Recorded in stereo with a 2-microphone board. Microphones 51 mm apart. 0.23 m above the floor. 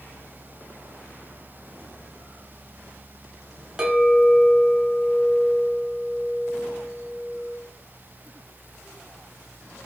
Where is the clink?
15° right (ahead or behind), 0.6 m.